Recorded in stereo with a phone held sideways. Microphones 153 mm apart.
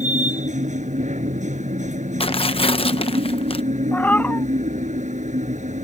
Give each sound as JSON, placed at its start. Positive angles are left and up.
{"t": 0.0, "sound": "a machine running", "side_deg": -50}
{"t": 2.2, "sound": "tearing paper", "side_deg": 40}
{"t": 3.9, "sound": "a cat meowing", "side_deg": 10}